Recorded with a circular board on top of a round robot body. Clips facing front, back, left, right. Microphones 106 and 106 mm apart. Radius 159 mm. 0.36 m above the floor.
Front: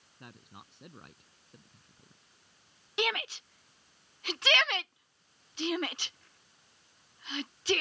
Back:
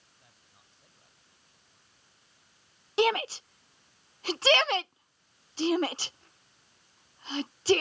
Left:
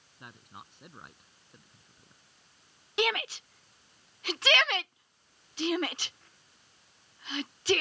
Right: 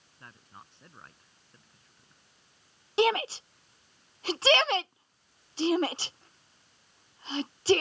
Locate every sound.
0.2 s a man speaking: 15° left
3.0 s a shout: 135° right